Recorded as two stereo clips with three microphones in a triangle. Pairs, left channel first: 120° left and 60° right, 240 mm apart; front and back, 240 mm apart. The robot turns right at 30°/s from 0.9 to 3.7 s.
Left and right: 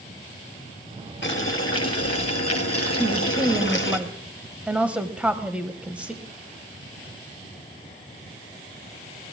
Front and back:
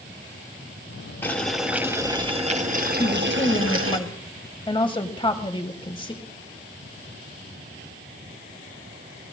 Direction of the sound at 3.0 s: 5° right.